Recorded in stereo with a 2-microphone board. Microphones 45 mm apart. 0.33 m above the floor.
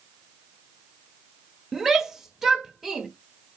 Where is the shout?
10° right (ahead or behind), 0.9 m.